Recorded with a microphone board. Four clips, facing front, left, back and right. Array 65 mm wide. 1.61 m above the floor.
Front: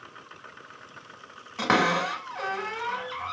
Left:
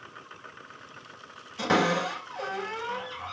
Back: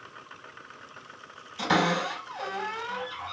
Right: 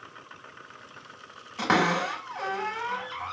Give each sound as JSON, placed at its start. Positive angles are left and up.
{"t": 1.6, "sound": "a cupboard door", "azimuth_deg": -30, "distance_m": 2.5}